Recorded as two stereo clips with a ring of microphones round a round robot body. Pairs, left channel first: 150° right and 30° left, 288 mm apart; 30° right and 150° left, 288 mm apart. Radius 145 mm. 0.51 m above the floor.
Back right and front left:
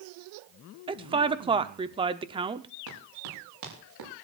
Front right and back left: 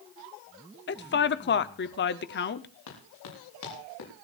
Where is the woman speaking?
30° right, 0.7 m.